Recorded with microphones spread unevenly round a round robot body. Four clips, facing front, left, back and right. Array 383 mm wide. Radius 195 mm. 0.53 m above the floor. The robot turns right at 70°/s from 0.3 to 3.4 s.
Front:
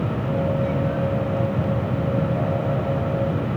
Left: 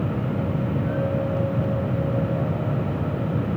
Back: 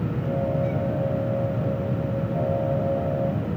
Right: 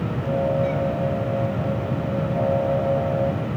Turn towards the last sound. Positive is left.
No sound to turn to.